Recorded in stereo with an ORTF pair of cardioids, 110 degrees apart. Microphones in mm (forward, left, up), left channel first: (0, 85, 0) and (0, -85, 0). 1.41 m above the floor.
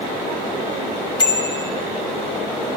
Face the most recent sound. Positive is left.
turn(degrees=25)